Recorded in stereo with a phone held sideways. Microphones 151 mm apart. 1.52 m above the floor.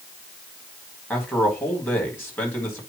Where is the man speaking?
15° left (ahead or behind), 4.5 m.